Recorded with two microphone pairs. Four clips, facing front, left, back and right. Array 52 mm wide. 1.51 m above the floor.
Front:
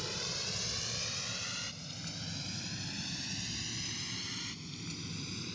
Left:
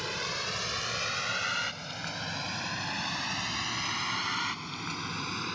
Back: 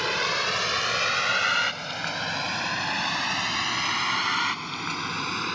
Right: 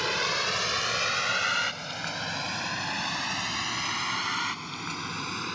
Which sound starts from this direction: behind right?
A vehicle, at 0.0 s.